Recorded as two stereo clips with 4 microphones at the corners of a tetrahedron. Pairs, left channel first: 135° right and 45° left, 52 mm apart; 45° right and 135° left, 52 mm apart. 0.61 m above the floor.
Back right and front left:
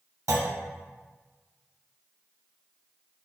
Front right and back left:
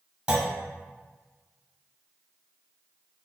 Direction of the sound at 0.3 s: 65° left.